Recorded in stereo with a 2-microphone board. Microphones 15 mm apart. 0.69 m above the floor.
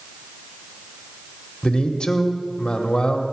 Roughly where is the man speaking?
Left.